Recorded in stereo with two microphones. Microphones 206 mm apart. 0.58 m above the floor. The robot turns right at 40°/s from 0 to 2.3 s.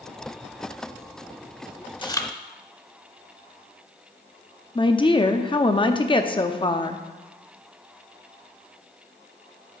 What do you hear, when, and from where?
2.0 s chewing: 25° left (ahead or behind), 0.7 m; by 2.3 s 10° left (ahead or behind), 0.7 m
4.8 s a woman speaking: 25° left (ahead or behind), 0.6 m